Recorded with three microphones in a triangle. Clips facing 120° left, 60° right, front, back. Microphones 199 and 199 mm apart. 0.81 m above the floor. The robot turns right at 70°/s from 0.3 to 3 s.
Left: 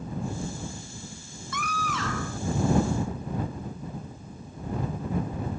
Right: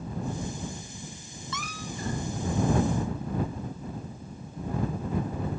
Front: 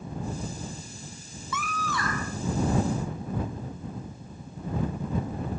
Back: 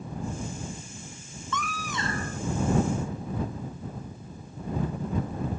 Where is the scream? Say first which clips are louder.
Left 5 dB, front 1 dB; 80° left; by 2.4 s 140° left.